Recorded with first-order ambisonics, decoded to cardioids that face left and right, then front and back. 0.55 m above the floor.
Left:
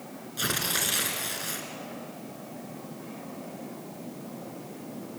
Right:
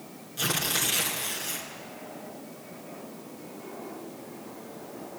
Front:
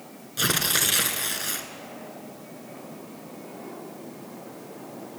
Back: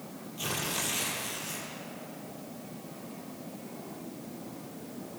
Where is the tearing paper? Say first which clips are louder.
Right 1 dB, front 10 dB; 5° left, 2.5 m.